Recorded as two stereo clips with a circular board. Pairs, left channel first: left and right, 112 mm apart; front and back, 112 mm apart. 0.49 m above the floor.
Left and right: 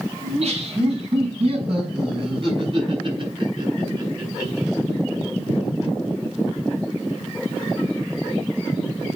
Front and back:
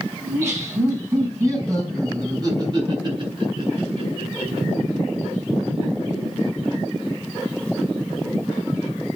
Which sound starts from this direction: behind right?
Laughter, at 0.2 s.